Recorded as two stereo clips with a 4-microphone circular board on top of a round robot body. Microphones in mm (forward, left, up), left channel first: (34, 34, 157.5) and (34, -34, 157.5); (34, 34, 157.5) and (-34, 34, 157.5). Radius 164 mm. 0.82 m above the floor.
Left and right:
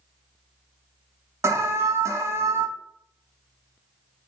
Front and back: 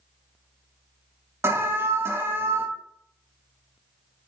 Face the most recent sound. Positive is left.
turn(degrees=-130)